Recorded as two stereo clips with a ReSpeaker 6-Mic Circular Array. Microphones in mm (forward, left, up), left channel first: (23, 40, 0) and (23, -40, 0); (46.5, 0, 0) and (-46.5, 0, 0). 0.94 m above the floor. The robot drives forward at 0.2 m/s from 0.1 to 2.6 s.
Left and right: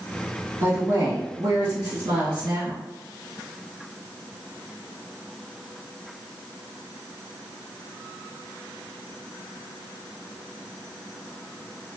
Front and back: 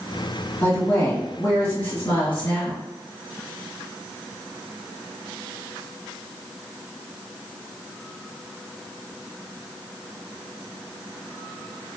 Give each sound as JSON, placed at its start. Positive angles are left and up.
{"t": 0.6, "sound": "a woman speaking", "azimuth_deg": -60, "distance_m": 1.9}